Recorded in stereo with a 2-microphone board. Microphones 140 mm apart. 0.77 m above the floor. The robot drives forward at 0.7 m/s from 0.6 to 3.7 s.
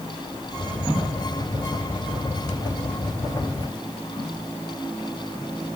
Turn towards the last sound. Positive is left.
No sound to turn to.